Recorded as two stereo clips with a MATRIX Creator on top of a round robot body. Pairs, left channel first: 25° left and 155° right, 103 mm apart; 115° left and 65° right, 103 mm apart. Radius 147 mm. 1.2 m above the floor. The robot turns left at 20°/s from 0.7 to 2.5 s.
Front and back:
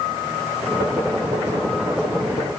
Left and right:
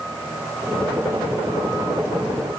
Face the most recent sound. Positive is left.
No sound to turn to.